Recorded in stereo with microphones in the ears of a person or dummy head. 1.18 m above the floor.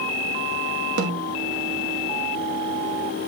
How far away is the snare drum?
About 1.2 m.